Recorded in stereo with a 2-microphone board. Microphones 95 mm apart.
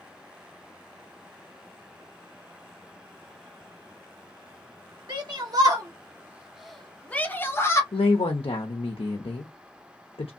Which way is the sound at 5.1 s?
55° right (ahead or behind).